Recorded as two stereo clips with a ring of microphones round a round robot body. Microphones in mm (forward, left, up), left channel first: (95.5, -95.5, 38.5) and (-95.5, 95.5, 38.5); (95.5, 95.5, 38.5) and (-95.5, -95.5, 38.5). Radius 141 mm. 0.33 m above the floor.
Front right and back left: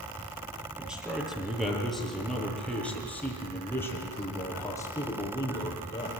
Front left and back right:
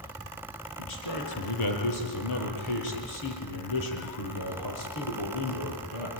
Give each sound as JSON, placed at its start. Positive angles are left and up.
{"t": 0.8, "sound": "a man speaking", "azimuth_deg": 50, "distance_m": 7.5}